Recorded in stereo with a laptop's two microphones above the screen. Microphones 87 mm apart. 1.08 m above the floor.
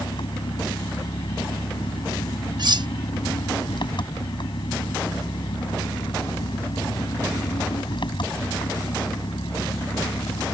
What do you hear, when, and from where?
0.0 s an engine running: 70° left (ahead or behind)
2.6 s cutlery clinking: 55° right (ahead or behind)